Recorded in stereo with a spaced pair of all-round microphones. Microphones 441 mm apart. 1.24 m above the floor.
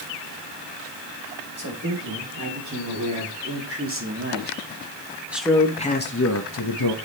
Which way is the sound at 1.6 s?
45° right (ahead or behind).